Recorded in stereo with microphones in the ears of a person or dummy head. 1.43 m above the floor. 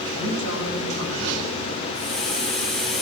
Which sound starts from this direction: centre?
A hiss, at 1.9 s.